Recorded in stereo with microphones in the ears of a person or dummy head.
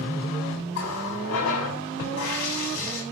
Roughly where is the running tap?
Left.